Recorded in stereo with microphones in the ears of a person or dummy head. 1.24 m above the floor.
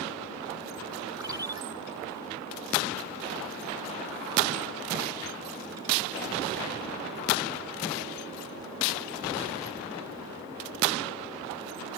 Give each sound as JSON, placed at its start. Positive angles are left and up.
{"t": 1.2, "sound": "a ringtone", "side_deg": -20}